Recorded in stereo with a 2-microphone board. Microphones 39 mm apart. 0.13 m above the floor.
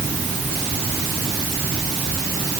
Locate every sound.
Only background noise.